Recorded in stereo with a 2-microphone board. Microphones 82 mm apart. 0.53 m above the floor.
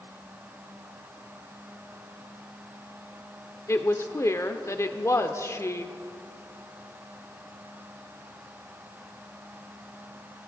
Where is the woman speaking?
35° left (ahead or behind), 1.0 m.